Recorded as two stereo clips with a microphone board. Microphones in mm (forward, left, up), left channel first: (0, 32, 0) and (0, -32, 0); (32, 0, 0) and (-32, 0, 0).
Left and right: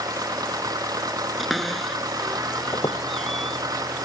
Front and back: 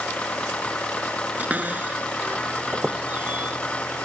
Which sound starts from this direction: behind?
A cupboard door, at 1.4 s.